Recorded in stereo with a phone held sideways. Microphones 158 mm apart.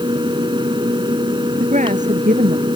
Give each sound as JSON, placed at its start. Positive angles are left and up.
{"t": 0.0, "sound": "a fan", "side_deg": -30}
{"t": 1.6, "sound": "a woman speaking", "side_deg": -50}